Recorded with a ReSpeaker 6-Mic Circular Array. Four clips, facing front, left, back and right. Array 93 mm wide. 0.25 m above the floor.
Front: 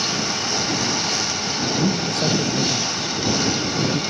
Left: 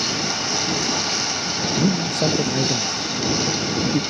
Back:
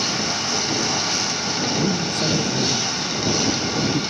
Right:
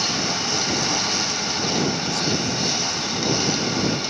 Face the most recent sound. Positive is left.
turn(degrees=105)